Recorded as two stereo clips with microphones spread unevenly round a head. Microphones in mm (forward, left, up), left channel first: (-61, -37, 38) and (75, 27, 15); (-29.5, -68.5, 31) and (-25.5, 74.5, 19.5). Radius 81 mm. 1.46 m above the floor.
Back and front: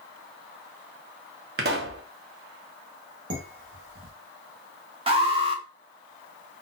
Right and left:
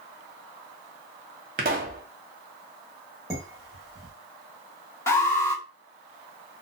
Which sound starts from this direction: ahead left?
A pop, at 1.6 s.